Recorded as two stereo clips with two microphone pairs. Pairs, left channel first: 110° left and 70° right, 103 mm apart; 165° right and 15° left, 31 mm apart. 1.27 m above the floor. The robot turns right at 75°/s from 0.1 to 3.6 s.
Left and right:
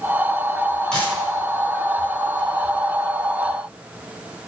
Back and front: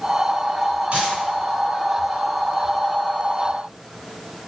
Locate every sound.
0.9 s a dropped coin: 30° left, 1.7 m; by 1.1 s 45° left, 1.7 m